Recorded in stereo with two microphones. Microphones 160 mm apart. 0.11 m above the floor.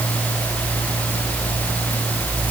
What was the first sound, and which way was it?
Only background noise.